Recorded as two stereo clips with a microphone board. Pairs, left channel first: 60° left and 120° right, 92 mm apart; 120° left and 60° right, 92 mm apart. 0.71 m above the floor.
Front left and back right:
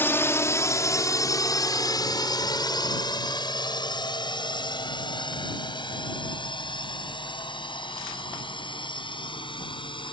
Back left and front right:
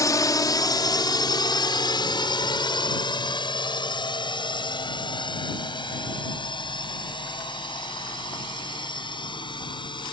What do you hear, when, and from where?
0.0 s a drone: 110° left; by 10.1 s 85° left